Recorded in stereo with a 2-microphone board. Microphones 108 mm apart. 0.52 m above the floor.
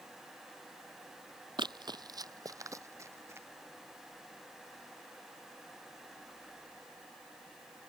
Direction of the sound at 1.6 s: 45° right (ahead or behind).